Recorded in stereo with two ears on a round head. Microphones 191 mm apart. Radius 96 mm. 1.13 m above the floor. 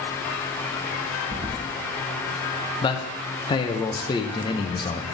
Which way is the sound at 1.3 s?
20° right (ahead or behind).